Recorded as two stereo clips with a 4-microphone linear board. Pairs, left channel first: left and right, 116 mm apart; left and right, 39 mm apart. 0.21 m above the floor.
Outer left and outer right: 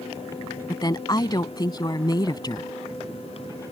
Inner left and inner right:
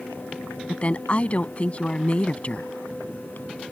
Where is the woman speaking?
35° left (ahead or behind).